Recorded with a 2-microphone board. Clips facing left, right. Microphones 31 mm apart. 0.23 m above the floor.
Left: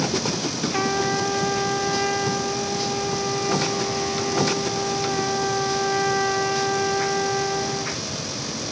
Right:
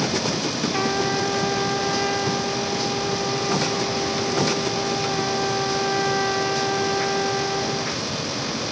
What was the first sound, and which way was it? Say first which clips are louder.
A trumpet: left 1 dB; centre (ahead or behind).